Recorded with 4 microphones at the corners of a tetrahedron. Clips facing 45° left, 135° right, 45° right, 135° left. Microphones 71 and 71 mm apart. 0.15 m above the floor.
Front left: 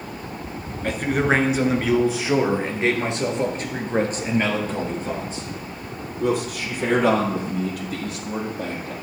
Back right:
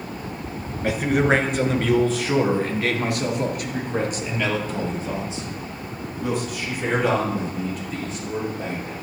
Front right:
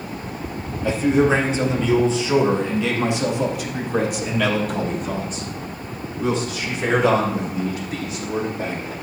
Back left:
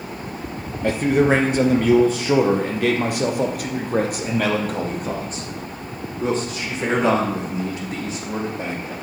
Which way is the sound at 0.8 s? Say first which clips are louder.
Back right 1 dB, even; 140° left.